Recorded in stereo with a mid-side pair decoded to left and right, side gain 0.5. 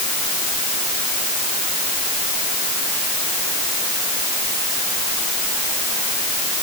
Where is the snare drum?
No snare drum in this recording.